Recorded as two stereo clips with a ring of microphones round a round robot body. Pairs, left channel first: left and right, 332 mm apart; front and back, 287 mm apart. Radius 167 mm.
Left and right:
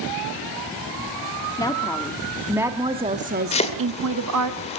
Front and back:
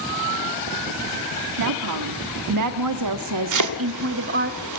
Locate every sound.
1.6 s a woman speaking: 170° left, 1.5 m; by 4.5 s 120° right, 1.2 m
3.5 s chopping: 160° left, 2 m